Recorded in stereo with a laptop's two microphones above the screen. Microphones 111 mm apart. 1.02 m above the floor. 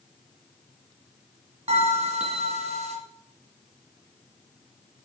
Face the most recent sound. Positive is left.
turn(degrees=-65)  # may be behind; listen again after turning